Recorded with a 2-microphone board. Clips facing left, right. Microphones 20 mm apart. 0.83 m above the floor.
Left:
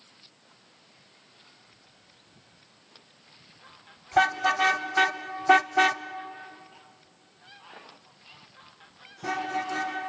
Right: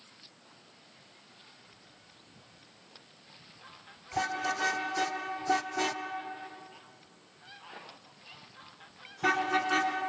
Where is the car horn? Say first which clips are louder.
Left 9 dB; 65° left (ahead or behind), 2 m; by 9.9 s 45° right (ahead or behind), 5 m.